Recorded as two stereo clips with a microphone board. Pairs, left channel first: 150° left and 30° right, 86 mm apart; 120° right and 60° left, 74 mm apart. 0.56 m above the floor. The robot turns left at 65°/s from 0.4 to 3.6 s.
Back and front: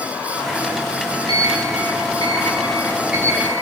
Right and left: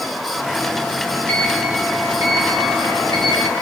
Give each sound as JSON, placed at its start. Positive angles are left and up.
{"t": 1.3, "sound": "a sliding door", "azimuth_deg": 170, "distance_m": 7.5}